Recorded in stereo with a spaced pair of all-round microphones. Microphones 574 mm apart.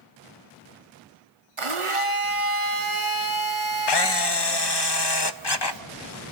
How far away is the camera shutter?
About 0.6 m.